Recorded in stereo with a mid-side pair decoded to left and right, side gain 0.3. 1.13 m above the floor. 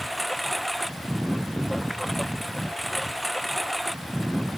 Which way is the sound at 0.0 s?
10° right.